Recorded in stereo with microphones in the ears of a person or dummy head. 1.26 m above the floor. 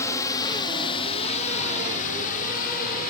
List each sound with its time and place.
0.0 s a drone: 15° left (ahead or behind); by 3.1 s 50° left (ahead or behind)